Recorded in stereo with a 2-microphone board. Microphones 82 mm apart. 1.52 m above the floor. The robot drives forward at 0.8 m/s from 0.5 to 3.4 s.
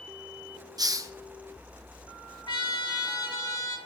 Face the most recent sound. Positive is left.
turn(degrees=50)  # may be behind; listen again after turning